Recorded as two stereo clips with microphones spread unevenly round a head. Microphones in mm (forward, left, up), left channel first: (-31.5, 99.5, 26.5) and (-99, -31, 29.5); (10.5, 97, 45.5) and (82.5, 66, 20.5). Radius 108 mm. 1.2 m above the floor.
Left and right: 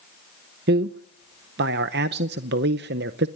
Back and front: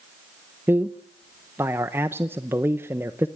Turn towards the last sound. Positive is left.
turn(degrees=-95)